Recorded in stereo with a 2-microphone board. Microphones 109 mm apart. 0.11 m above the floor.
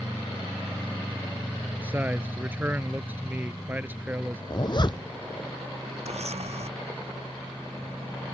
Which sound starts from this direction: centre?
A man speaking, at 1.8 s.